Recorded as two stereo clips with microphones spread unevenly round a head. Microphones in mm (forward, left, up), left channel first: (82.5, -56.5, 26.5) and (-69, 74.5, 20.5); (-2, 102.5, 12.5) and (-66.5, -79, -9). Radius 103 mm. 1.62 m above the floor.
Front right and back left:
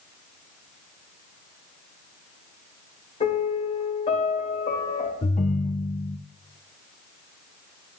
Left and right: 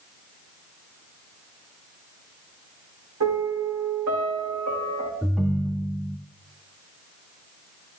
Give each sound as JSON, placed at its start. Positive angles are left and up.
{"t": 3.2, "sound": "a piano", "azimuth_deg": -100, "distance_m": 2.5}
{"t": 5.2, "sound": "a ringtone", "azimuth_deg": -15, "distance_m": 0.6}